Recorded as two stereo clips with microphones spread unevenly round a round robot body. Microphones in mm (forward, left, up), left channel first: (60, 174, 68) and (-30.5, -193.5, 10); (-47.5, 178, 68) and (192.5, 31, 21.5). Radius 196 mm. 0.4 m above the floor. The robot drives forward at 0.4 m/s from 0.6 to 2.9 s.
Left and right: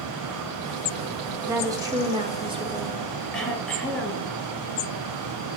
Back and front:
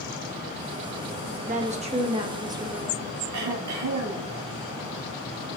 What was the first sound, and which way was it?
A woman speaking, 40° right.